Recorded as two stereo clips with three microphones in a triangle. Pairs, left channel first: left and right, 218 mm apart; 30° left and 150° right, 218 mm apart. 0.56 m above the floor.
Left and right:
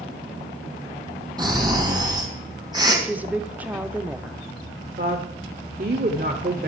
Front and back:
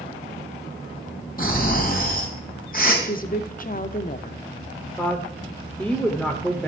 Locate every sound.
1.4 s snoring: 20° right, 4.5 m
3.0 s a woman speaking: 10° right, 1.0 m
5.0 s a woman speaking: 55° right, 1.7 m